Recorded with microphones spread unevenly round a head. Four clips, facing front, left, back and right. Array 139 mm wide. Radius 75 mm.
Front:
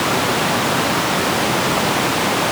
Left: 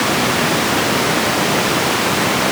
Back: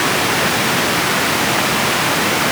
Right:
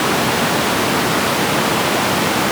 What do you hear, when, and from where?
Only background noise.